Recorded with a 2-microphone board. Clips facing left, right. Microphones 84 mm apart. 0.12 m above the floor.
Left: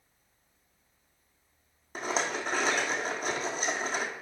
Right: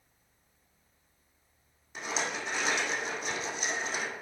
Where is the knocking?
I don't hear knocking.